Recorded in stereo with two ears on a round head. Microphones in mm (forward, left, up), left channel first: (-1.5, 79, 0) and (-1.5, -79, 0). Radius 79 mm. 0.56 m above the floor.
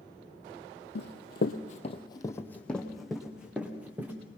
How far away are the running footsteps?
About 1.5 m.